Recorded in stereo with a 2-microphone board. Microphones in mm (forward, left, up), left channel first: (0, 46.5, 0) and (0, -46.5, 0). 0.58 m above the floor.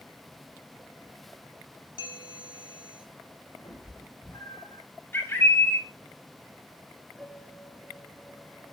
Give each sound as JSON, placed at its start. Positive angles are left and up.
{"t": 2.0, "sound": "a bell", "side_deg": 70, "distance_m": 5.0}
{"t": 3.6, "sound": "a cat meowing", "side_deg": 55, "distance_m": 8.5}
{"t": 5.1, "sound": "a bird", "side_deg": 25, "distance_m": 2.5}
{"t": 7.2, "sound": "a piano", "side_deg": 0, "distance_m": 5.0}